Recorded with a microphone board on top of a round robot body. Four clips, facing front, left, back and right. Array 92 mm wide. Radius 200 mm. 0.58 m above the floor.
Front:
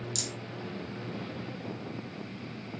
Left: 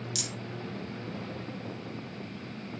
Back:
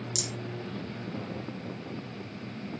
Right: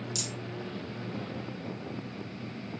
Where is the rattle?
105° left, 2 m.